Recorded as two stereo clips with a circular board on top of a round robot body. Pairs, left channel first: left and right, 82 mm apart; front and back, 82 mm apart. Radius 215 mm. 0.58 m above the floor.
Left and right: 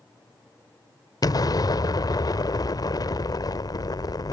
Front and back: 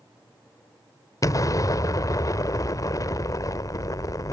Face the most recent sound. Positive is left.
turn(degrees=50)